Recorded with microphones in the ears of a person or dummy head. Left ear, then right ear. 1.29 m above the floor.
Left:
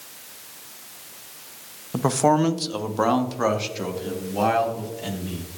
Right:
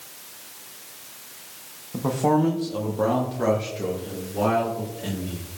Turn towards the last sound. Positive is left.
turn(degrees=30)  # may be behind; listen again after turning